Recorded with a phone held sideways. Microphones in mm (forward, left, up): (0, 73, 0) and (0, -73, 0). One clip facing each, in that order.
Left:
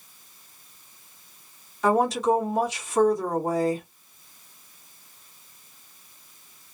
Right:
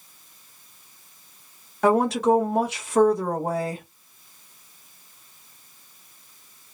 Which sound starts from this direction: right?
A woman speaking, at 1.8 s.